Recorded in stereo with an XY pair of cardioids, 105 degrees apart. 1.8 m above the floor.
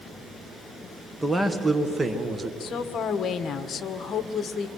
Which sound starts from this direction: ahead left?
A woman speaking, at 2.6 s.